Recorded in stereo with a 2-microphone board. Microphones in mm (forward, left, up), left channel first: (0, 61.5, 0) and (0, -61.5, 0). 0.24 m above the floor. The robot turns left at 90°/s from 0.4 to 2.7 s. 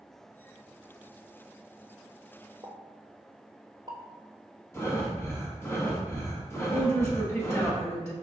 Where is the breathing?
25° left (ahead or behind), 1.3 m.